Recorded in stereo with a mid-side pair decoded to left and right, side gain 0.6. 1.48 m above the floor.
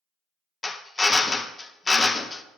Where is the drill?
20° left, 0.5 m.